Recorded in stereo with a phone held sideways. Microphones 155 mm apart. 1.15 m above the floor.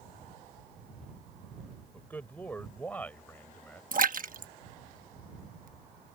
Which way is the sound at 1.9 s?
10° left (ahead or behind).